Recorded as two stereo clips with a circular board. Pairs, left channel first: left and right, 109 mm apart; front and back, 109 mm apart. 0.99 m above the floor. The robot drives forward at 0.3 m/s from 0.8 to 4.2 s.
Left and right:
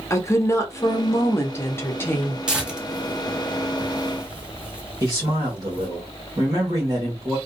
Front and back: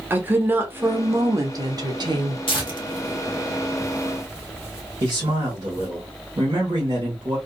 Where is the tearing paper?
10° right, 1.1 m; by 5.9 s 25° right, 0.8 m.